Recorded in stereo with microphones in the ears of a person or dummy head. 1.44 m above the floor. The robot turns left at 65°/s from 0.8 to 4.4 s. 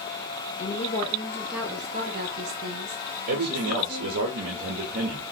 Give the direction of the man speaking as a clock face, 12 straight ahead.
2 o'clock.